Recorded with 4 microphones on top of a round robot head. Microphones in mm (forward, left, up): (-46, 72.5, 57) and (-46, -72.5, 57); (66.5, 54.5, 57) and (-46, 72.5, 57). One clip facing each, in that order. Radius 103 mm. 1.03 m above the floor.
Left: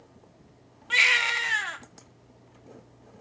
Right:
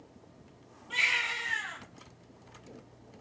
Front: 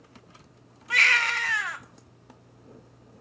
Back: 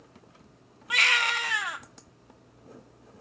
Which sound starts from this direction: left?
A baby crying, at 0.9 s.